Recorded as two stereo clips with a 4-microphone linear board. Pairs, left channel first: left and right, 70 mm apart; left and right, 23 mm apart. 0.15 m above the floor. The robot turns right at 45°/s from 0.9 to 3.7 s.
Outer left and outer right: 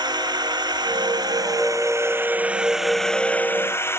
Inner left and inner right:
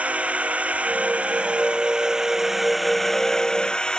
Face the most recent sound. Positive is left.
turn(degrees=35)